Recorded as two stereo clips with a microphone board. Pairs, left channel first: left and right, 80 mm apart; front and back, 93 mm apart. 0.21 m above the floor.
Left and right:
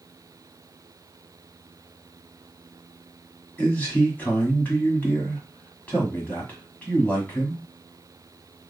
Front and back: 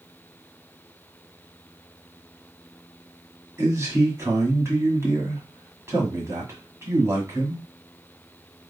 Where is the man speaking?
145° left, 1.6 m.